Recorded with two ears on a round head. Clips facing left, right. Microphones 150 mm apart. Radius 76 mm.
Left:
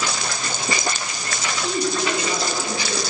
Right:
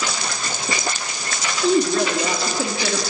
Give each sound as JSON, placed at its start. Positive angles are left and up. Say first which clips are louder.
{"t": 1.6, "sound": "a woman speaking", "louder": "right 6 dB", "side_deg": -30, "distance_m": 3.5}